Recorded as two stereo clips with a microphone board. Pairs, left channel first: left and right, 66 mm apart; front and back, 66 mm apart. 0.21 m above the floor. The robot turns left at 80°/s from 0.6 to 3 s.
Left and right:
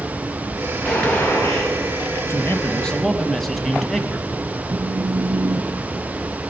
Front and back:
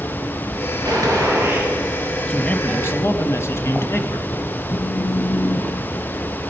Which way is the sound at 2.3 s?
65° left.